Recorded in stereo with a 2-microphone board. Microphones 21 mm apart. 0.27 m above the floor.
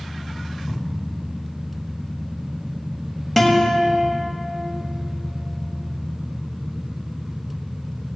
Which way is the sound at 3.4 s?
10° left (ahead or behind).